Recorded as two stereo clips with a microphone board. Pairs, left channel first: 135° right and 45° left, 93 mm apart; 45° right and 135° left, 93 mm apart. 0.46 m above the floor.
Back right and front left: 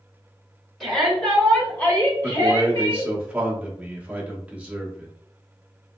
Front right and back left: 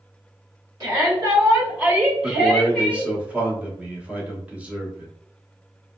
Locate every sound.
0.8 s a shout: 140° left, 1.7 m; by 3.1 s 125° right, 1.7 m
2.2 s a man speaking: 95° left, 0.9 m